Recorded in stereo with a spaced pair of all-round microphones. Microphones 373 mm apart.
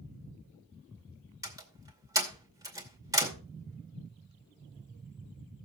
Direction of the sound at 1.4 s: 10° right (ahead or behind).